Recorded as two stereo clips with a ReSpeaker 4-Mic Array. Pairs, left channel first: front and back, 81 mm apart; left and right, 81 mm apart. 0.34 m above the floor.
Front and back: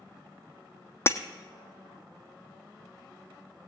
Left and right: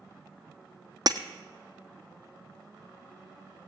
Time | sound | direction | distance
1.1 | breaking glass | 55° right | 1.1 m